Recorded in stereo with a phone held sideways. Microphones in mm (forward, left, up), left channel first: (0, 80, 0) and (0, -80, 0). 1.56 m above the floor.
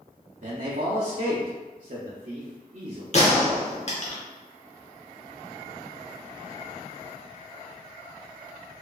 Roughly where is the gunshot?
Left.